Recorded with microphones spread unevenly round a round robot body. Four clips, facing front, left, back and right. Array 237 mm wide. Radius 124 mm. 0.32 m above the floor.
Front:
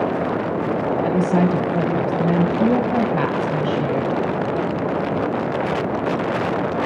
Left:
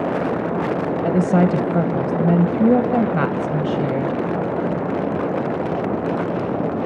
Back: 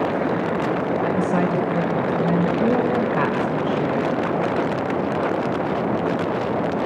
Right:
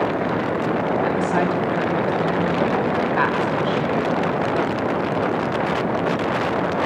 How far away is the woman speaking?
About 2.5 m.